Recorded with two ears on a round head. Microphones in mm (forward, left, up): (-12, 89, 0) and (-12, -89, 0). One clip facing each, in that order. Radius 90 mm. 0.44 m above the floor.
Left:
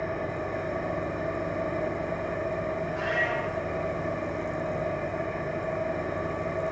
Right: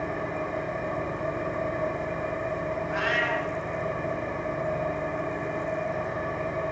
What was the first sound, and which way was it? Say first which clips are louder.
An engine running: even; 10° left (ahead or behind).